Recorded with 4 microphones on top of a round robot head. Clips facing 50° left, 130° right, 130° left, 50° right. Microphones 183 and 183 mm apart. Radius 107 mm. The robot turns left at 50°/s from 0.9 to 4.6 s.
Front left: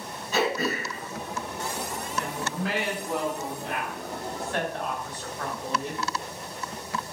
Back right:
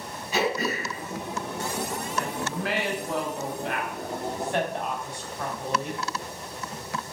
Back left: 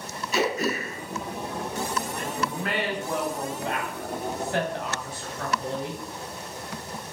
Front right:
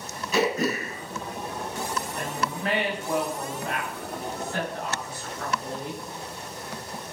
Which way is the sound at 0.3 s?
55° right.